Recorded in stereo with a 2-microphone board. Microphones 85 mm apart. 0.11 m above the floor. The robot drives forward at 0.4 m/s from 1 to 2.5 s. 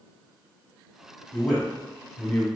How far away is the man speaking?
About 1.5 m.